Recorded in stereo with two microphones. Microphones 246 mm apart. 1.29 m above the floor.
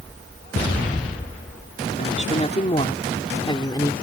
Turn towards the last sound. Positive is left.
turn(degrees=15)  # may be behind; listen again after turning